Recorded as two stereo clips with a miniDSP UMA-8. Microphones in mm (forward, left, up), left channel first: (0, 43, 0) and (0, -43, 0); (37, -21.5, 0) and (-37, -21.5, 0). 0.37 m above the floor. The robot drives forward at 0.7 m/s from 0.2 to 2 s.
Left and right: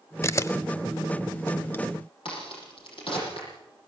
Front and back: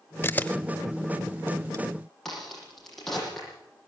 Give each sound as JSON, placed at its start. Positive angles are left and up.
{"t": 0.2, "sound": "a camera shutter", "azimuth_deg": 45, "distance_m": 0.8}
{"t": 2.2, "sound": "a crack", "azimuth_deg": 85, "distance_m": 8.5}